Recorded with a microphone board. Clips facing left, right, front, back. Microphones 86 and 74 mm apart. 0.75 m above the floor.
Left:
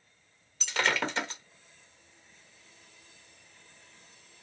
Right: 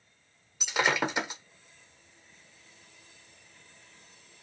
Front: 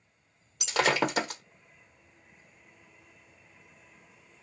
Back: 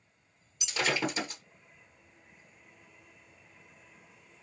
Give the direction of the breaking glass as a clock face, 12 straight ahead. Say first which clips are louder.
Right 2 dB, front 5 dB; 12 o'clock.